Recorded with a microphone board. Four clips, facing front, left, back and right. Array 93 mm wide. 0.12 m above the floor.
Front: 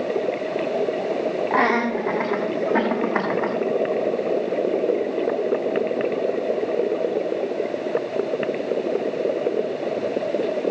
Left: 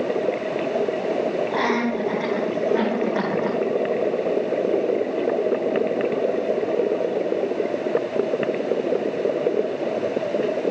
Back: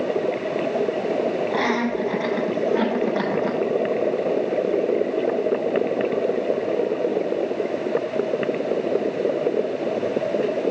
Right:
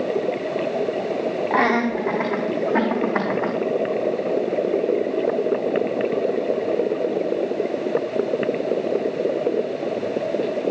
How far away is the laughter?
About 6.5 m.